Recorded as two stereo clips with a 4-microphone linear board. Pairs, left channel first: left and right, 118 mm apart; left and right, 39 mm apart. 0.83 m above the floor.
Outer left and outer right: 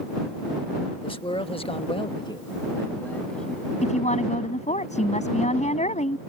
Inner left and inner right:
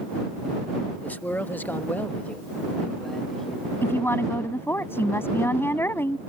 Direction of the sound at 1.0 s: 50° left (ahead or behind).